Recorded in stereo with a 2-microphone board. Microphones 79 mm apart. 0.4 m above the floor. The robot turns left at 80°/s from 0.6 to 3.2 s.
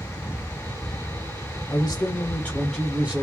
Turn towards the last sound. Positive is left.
turn(degrees=-35)